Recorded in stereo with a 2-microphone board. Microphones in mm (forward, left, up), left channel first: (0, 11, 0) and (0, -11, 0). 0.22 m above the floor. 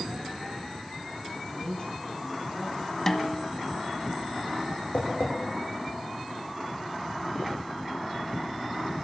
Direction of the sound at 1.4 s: 50° left (ahead or behind).